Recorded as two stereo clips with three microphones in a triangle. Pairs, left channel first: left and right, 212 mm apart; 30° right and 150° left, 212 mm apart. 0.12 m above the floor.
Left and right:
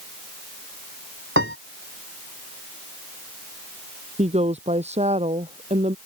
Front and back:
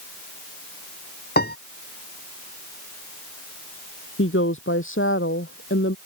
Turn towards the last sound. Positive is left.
turn(degrees=-30)